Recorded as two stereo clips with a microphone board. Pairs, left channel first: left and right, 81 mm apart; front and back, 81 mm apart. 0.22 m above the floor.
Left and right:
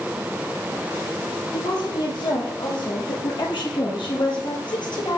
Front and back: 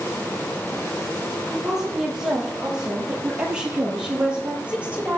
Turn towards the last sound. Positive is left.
turn(degrees=110)